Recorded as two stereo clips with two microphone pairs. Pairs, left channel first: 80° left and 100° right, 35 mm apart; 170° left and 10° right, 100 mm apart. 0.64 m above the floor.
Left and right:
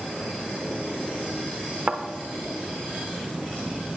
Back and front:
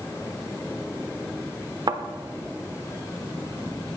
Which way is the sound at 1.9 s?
55° right.